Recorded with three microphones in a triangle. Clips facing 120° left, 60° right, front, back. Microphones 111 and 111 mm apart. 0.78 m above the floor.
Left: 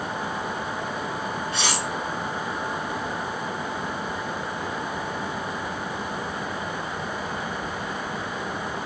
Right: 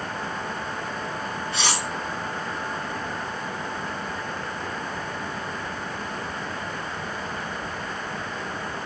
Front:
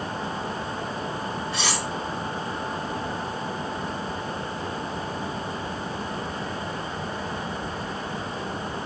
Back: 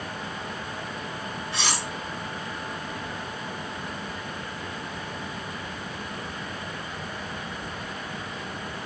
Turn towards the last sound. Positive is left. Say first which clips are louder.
# right 2 dB, back 1 dB
turn(degrees=80)